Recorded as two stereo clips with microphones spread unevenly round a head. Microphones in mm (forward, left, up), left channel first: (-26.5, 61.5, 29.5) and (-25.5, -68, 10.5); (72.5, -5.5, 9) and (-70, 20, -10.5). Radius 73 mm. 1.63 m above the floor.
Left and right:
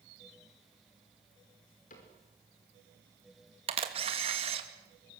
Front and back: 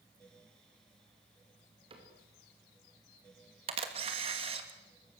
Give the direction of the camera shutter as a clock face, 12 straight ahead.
4 o'clock.